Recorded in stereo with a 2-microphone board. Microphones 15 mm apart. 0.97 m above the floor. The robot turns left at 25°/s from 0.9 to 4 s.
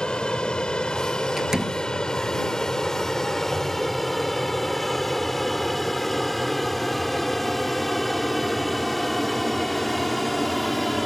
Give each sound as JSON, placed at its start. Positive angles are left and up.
{"t": 0.0, "sound": "an aircraft", "side_deg": 70}
{"t": 1.4, "sound": "a door slam", "side_deg": -30}